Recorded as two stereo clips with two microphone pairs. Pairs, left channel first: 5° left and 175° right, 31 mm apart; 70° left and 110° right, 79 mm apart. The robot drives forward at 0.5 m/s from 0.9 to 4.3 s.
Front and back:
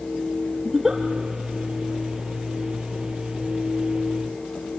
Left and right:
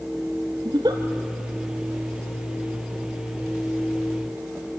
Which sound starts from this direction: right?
A giggle, at 0.7 s.